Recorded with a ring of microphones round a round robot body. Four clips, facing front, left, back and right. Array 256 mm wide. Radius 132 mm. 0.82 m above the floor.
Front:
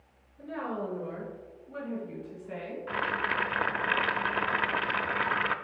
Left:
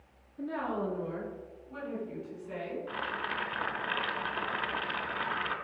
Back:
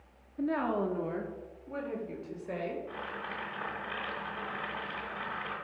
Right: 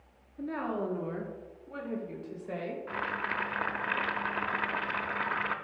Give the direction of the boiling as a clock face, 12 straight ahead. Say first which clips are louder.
Right 1 dB, front 8 dB; 12 o'clock.